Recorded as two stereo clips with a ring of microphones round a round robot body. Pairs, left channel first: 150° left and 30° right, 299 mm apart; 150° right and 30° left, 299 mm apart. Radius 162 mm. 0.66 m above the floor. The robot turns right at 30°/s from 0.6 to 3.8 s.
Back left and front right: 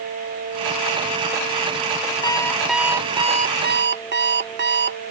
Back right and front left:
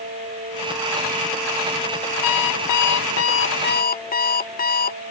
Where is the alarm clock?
135° right; by 5.0 s 85° right.